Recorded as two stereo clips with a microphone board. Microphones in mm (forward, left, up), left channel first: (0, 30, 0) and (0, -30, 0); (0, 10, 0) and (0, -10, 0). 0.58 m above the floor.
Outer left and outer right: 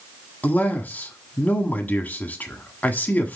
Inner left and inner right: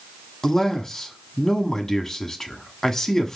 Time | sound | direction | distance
0.4 | a man speaking | 25° left (ahead or behind) | 1.3 m